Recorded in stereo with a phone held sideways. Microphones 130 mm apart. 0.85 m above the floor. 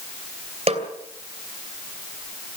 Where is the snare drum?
55° right (ahead or behind), 2.5 m.